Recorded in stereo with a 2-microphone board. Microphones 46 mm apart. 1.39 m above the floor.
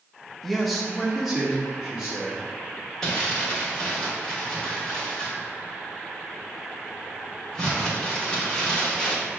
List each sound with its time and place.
0.4 s a man speaking: 5° left (ahead or behind), 0.6 m; by 2.5 s 10° right (ahead or behind), 1.8 m
3.0 s crumpling: 10° left (ahead or behind), 1.2 m